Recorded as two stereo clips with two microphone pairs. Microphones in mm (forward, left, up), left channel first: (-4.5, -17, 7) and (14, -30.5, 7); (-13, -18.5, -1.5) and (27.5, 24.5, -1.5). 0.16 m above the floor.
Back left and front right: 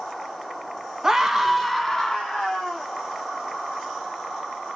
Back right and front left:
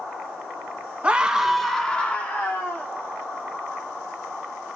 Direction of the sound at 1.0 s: 15° left.